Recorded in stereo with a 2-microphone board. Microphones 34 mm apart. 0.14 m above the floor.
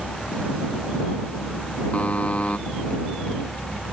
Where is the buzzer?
45° left (ahead or behind).